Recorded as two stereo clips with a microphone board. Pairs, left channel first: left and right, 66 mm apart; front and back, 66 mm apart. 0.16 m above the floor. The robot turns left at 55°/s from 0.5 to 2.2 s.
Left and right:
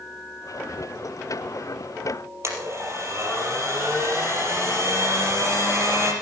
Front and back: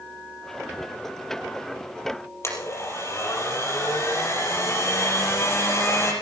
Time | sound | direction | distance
2.4 | a blender | 45° right | 4.5 m